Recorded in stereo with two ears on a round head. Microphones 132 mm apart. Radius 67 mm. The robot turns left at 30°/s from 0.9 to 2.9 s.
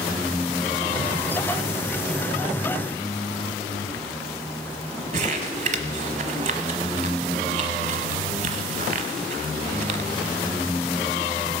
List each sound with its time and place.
5.1 s crumpling: 55° right (ahead or behind), 1.1 m